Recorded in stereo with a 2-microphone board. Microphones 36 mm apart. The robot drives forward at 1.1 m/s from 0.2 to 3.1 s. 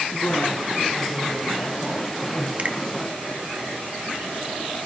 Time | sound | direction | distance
0.1 | a woman speaking | 40° left (ahead or behind) | 5.5 m
2.6 | a finger snap | 40° right (ahead or behind) | 1.2 m